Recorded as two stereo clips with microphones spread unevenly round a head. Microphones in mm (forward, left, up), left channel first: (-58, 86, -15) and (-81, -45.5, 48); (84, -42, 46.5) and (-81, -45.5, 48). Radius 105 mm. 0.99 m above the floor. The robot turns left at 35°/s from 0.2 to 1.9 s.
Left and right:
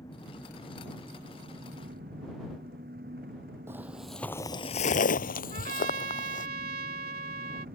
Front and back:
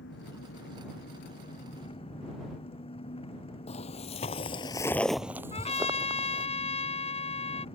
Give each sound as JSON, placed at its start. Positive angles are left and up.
{"t": 0.0, "sound": "an engine running", "azimuth_deg": 5}
{"t": 3.7, "sound": "footsteps", "azimuth_deg": -45}
{"t": 5.5, "sound": "a trumpet", "azimuth_deg": -50}